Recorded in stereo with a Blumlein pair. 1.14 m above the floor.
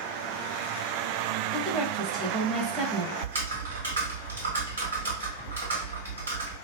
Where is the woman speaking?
20° right, 0.8 m.